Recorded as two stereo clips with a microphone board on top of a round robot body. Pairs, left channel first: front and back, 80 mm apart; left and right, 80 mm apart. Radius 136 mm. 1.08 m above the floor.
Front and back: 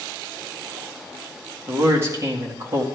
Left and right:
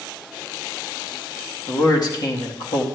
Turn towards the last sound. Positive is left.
turn(degrees=120)